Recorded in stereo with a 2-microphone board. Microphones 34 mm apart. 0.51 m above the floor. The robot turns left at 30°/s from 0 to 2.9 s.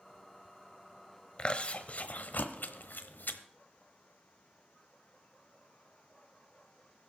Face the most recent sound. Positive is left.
turn(degrees=75)  # may be behind; listen again after turning